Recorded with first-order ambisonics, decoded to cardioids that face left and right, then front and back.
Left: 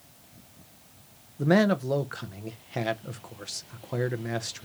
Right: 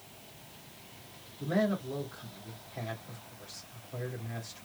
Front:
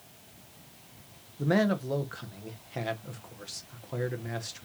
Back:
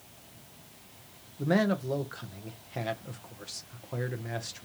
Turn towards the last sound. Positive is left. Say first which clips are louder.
# left 8 dB, front 1 dB
turn(degrees=85)